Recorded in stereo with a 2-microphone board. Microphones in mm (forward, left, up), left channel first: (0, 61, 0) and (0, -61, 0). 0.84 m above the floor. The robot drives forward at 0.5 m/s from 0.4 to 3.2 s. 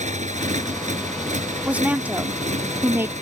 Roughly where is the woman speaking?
Centre.